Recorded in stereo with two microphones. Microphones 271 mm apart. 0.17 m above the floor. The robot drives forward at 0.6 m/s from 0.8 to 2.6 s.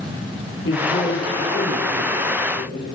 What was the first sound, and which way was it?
A man speaking, 50° left (ahead or behind).